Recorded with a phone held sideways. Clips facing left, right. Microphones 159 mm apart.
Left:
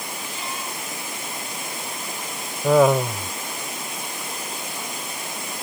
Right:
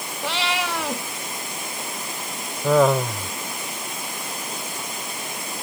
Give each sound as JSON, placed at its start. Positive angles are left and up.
{"t": 0.2, "sound": "a cat meowing", "side_deg": -80}
{"t": 2.6, "sound": "laughter", "side_deg": 5}